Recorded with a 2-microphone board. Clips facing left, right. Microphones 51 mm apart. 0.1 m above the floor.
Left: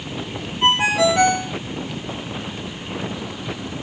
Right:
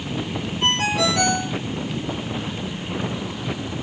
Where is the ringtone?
20° left (ahead or behind), 1.6 m.